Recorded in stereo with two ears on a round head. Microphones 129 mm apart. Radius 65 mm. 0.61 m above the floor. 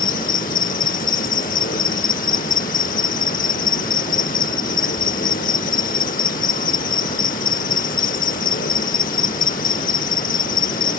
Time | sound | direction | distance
0.0 | an insect | 65° left (ahead or behind) | ?